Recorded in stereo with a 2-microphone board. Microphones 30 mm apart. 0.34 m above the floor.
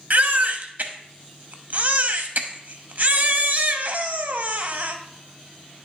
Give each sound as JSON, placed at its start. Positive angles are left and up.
{"t": 0.1, "sound": "a baby crying", "side_deg": -65, "distance_m": 0.7}